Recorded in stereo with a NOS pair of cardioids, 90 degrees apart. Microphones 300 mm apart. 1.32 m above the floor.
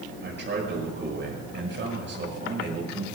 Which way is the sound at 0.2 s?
35° right.